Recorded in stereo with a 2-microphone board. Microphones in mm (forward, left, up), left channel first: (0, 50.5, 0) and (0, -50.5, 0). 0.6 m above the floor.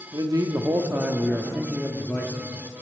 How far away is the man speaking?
About 0.9 m.